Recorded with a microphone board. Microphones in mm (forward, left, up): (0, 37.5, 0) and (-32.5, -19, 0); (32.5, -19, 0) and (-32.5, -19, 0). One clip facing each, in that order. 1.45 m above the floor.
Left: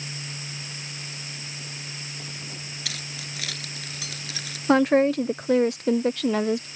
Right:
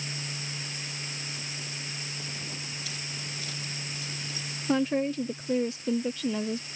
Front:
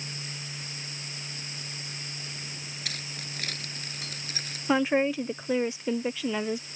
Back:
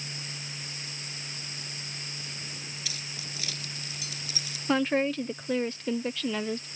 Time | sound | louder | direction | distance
2.9 | keys jangling | left 2 dB, front 2 dB | 40° left | ?
4.7 | a woman speaking | left 8 dB, front 2 dB | 80° left | ?